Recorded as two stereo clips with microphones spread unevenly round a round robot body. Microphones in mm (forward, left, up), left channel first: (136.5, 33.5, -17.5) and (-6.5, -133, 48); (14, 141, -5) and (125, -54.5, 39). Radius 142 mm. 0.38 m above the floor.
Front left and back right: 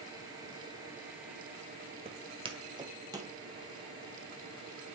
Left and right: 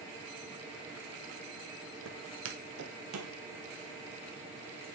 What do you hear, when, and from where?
2.0 s footsteps: 75° right, 0.7 m; by 3.3 s 60° right, 1.4 m